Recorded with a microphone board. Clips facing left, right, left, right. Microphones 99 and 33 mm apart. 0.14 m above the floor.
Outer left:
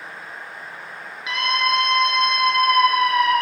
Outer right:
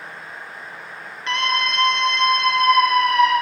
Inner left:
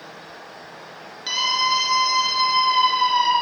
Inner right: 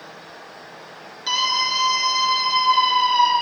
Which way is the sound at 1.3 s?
10° left (ahead or behind).